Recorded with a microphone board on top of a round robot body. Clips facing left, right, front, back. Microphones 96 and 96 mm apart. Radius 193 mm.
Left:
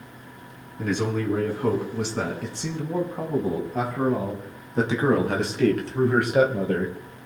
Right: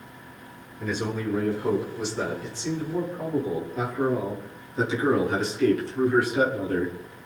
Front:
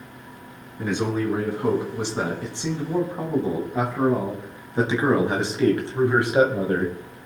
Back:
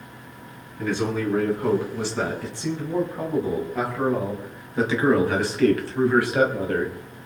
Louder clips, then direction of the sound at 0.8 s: Left 3 dB, even; 70° left.